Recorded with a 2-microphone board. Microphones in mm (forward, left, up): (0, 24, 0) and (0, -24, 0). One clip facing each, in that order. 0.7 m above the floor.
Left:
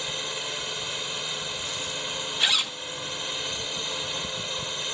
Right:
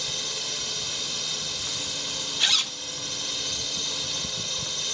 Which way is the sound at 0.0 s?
20° left (ahead or behind).